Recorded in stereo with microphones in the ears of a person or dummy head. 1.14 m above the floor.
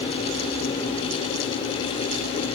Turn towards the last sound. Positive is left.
No sound to turn to.